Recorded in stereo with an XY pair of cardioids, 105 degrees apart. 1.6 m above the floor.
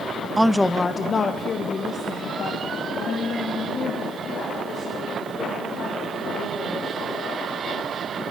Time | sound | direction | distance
0.4 | a woman speaking | 10° right | 0.6 m